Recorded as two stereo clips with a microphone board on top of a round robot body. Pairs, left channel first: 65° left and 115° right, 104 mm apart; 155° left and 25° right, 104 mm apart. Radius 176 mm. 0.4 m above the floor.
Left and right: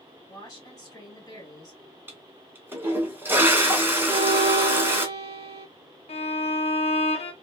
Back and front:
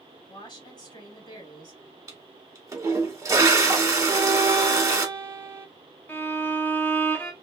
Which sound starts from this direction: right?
A violin, at 4.1 s.